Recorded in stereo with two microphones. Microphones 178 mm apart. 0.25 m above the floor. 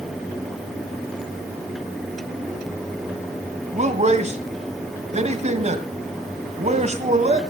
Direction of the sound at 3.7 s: 40° right (ahead or behind).